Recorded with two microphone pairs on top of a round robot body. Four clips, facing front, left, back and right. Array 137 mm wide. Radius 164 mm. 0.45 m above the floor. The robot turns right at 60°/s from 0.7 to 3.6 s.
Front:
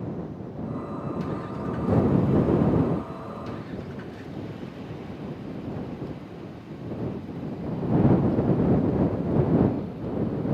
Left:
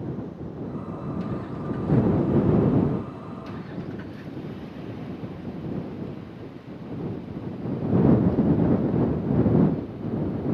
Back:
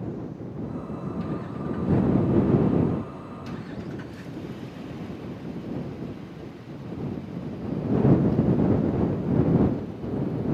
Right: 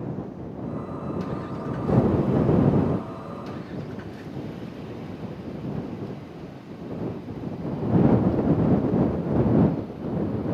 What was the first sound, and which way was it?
Only background noise.